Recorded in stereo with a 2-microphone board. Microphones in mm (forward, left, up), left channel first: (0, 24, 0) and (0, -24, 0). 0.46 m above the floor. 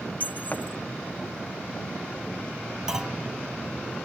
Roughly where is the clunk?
Centre.